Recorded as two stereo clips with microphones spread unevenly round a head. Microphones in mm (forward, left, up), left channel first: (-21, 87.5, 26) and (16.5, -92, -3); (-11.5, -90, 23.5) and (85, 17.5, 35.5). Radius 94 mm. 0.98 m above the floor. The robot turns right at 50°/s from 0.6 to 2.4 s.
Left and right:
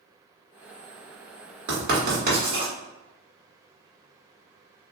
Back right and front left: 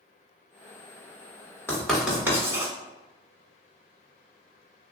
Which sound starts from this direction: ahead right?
Writing, at 1.7 s.